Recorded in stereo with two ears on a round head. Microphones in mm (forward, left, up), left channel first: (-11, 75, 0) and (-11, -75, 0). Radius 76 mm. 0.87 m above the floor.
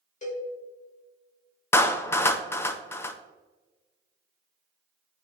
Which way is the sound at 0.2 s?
45° left (ahead or behind).